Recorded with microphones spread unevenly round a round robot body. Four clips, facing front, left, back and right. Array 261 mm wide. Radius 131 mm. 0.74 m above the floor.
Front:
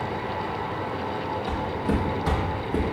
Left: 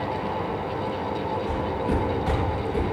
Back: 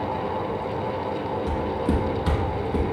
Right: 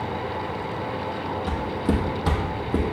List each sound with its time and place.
1.5 s footsteps: 140° right, 1.1 m; by 2.8 s 90° right, 1.1 m